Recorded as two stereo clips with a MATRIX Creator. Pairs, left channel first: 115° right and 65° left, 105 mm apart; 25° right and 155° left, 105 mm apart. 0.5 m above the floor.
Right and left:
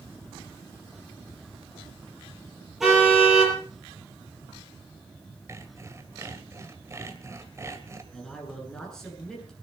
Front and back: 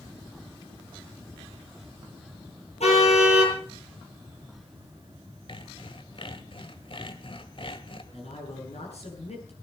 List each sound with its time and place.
2.8 s a car horn: 20° right, 8.5 m
5.5 s sawing: 10° left, 1.8 m
8.1 s a man speaking: 25° right, 8 m